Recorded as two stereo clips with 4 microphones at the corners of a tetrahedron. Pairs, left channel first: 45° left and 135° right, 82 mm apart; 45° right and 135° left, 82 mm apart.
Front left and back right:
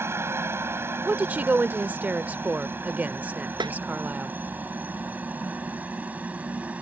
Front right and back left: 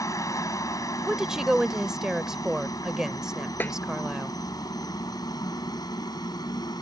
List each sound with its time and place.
0.0 s a helicopter: 80° right; by 6.8 s 65° right
1.1 s a woman speaking: 155° right
3.6 s a snare drum: 110° right